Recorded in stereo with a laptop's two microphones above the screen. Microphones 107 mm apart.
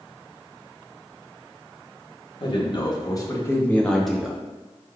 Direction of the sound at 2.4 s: 50° left (ahead or behind).